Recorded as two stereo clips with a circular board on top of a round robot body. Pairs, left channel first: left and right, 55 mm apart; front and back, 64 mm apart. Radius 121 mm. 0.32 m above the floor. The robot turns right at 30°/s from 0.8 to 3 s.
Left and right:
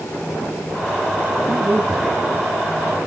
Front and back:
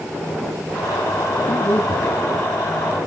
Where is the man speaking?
35° right, 6 m; by 2.2 s 15° right, 6 m.